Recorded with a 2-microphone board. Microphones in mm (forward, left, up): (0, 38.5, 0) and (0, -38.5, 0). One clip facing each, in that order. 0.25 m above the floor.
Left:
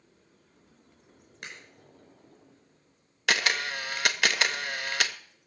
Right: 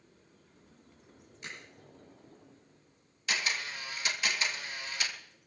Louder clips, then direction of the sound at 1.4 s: Left 1 dB; 70° left (ahead or behind).